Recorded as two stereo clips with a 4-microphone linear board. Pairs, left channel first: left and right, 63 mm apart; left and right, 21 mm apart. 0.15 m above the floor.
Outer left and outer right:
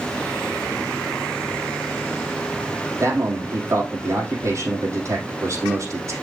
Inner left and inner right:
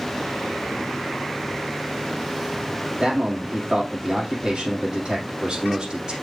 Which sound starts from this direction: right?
A man speaking, at 3.0 s.